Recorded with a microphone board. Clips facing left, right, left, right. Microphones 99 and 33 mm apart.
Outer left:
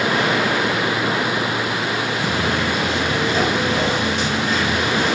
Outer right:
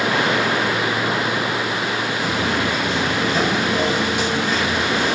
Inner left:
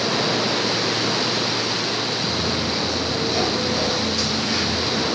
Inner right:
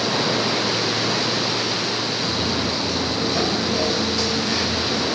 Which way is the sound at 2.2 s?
20° left (ahead or behind).